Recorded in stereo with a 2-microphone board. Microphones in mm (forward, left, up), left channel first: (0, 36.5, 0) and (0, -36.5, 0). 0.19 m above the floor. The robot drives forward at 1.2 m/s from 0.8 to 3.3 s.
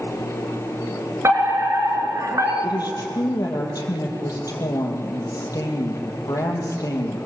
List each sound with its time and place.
1.2 s a fire alarm: 40° right (ahead or behind), 4 m; by 2.5 s 50° right (ahead or behind), 3.5 m
2.6 s a woman speaking: 65° left (ahead or behind), 5 m; by 7.2 s 55° left (ahead or behind), 5.5 m